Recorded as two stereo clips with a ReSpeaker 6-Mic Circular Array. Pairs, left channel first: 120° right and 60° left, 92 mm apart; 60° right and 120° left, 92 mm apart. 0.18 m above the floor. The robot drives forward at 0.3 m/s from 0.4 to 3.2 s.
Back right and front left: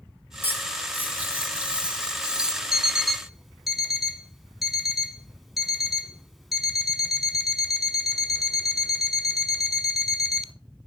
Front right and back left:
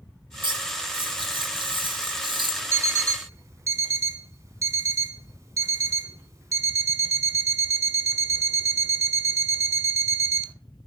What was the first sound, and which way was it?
Cutlery clinking, 125° left.